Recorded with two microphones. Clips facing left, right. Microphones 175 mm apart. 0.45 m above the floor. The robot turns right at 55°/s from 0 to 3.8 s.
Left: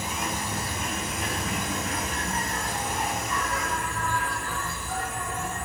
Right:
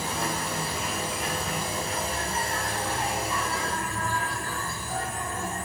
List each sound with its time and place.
0.0 s an insect: 5° left, 3 m; by 5.7 s 145° right, 3 m